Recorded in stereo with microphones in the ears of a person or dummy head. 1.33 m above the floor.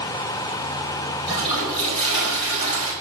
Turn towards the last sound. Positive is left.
turn(degrees=55)  # may be behind; listen again after turning